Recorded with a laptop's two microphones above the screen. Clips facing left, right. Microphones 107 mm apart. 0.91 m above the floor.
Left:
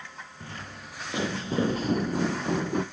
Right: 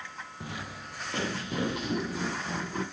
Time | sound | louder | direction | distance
0.4 | footsteps | right 2 dB | 15° right (ahead or behind) | 1.3 m